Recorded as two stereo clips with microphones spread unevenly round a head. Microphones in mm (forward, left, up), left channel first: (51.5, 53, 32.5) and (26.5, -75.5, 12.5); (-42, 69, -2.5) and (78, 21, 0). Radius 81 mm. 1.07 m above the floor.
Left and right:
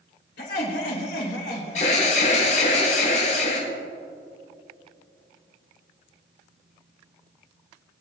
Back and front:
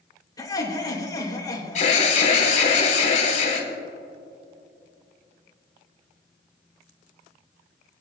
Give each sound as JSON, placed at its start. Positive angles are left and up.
{"t": 0.4, "sound": "laughter", "azimuth_deg": 95, "distance_m": 3.5}
{"t": 1.8, "sound": "an alarm", "azimuth_deg": 125, "distance_m": 3.0}